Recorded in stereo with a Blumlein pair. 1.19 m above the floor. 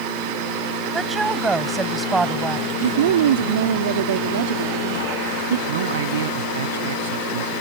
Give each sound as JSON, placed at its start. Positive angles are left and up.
{"t": 0.9, "sound": "a woman speaking", "azimuth_deg": -10}
{"t": 2.8, "sound": "a woman speaking", "azimuth_deg": -60}
{"t": 5.7, "sound": "a man speaking", "azimuth_deg": -60}